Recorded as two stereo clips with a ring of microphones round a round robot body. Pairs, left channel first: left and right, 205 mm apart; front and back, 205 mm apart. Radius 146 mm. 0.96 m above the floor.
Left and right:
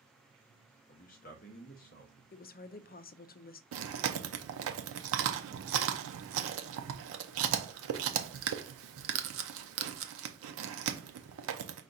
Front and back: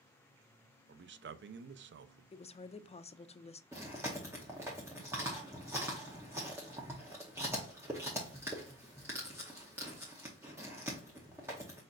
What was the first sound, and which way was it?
A man speaking, 150° left.